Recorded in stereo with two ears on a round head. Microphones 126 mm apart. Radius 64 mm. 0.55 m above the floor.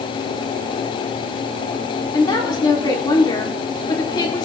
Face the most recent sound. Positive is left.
turn(degrees=30)  # may be behind; listen again after turning